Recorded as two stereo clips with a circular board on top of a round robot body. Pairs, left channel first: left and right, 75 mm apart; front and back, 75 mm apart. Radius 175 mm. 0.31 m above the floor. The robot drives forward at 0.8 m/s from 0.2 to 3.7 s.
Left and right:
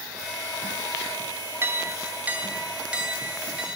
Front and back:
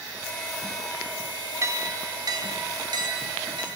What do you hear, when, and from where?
1.6 s a clink: 140° right, 0.8 m; by 3.8 s 170° right, 2 m